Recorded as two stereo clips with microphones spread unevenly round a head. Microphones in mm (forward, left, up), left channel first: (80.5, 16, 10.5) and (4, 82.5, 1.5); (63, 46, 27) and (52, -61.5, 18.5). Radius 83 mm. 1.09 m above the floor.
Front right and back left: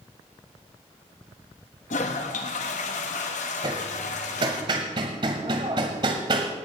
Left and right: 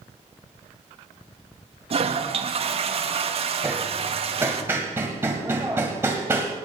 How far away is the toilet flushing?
About 1.3 m.